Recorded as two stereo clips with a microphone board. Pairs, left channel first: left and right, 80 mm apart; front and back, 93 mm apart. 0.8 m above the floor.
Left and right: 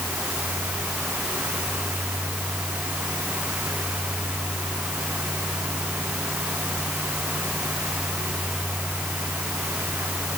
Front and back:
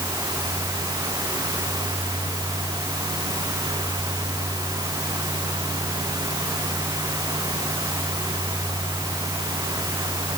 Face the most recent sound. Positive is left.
No sound to turn to.